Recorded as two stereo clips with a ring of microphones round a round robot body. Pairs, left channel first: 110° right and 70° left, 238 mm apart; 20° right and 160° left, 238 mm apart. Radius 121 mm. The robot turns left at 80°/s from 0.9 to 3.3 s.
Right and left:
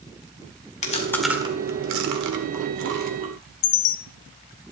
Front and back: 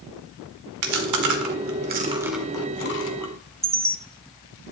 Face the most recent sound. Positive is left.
turn(degrees=-125)